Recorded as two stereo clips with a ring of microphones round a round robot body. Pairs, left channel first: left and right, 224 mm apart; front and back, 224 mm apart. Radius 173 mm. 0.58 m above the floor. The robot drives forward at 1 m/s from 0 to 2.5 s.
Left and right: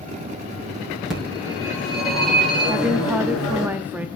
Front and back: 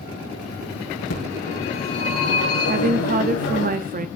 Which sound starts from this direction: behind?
A woman speaking, at 2.7 s.